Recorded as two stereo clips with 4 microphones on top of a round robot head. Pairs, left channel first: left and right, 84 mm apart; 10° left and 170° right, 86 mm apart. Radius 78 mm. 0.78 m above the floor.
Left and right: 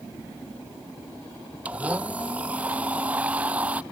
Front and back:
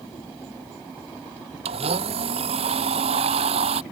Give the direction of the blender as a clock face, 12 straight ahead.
6 o'clock.